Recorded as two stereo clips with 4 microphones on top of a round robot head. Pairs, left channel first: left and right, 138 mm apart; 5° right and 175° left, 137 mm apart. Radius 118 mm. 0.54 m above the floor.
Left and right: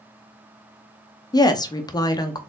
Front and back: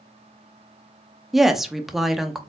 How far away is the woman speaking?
About 0.7 m.